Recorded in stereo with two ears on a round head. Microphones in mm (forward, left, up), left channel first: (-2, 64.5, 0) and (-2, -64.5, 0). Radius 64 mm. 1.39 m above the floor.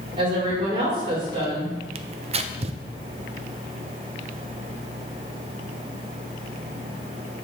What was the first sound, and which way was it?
A woman speaking, 35° right (ahead or behind).